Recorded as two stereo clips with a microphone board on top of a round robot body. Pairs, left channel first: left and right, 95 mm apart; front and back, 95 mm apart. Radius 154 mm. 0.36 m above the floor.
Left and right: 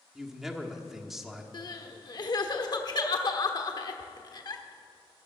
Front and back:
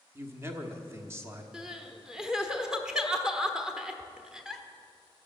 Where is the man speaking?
175° right, 1.5 m.